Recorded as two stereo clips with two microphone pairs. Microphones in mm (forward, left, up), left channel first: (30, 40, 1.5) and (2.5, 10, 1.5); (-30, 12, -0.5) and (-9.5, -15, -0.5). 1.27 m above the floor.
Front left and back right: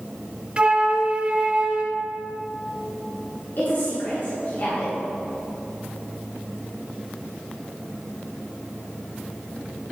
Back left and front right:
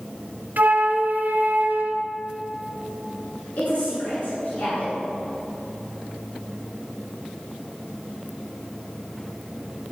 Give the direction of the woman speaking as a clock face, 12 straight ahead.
9 o'clock.